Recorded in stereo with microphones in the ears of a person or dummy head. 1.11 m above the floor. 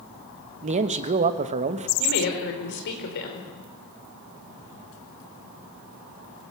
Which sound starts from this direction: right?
A man speaking, at 0.6 s.